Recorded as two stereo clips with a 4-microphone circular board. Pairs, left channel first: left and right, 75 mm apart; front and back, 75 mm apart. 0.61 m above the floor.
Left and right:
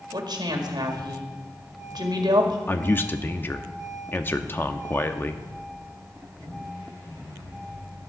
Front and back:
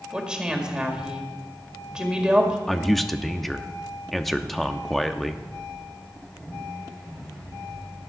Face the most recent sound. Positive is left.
turn(degrees=90)